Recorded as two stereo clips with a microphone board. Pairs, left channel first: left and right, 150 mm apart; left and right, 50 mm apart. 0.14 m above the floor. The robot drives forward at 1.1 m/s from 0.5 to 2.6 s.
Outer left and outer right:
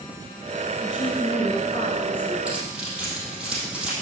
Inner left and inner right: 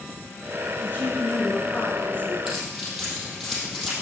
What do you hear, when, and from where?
0.8 s a woman speaking: 35° left (ahead or behind), 2 m
2.5 s keys jangling: 5° right (ahead or behind), 3 m